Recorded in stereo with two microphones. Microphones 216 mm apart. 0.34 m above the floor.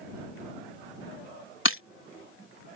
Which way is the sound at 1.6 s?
65° left (ahead or behind).